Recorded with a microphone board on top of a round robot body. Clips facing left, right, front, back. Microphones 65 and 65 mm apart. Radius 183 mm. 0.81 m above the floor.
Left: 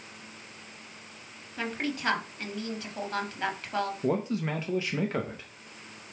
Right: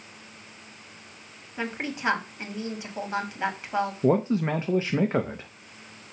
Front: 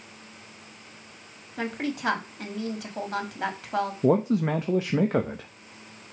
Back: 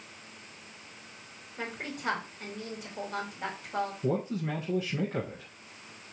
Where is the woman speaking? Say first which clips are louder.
Right 1 dB, front 8 dB; 15° right, 2.5 m.